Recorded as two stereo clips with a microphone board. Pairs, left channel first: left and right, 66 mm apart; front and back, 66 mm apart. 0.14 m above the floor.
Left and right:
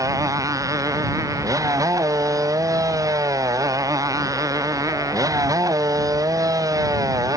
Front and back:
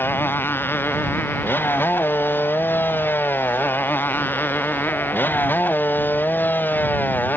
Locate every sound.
0.0 s a motorcycle: 60° right